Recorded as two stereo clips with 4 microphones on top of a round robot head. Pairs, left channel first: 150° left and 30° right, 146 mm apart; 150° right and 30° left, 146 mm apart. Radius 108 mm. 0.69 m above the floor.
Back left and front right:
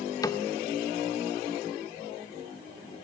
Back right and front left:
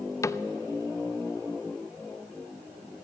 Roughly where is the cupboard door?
Behind.